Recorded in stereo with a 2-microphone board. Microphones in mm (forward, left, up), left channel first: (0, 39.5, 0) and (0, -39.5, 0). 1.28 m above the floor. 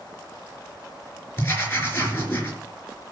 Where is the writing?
30° left (ahead or behind), 4 m.